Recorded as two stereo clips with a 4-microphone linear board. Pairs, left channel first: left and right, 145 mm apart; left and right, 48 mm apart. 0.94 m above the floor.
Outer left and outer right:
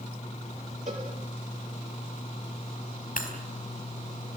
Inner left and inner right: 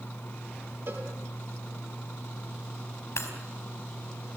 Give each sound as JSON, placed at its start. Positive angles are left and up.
{"t": 0.9, "sound": "a cowbell", "side_deg": -55, "distance_m": 4.5}
{"t": 3.2, "sound": "breaking glass", "side_deg": 65, "distance_m": 4.5}